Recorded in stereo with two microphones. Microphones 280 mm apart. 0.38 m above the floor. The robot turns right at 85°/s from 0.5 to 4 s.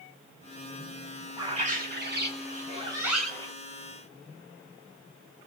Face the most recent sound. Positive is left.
turn(degrees=65)